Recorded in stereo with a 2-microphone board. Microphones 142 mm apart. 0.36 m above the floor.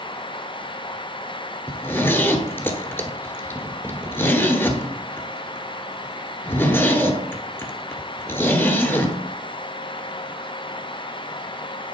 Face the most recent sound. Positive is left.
turn(degrees=15)  # may be behind; listen again after turning